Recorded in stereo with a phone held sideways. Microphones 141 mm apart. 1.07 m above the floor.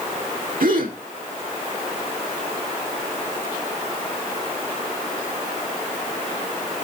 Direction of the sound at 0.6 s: 85° right.